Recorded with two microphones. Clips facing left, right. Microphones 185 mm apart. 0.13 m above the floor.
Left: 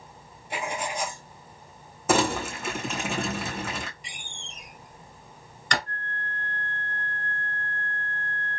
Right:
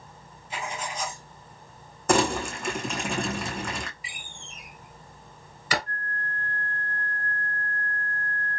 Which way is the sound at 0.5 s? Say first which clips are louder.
Left 3 dB; 65° left (ahead or behind).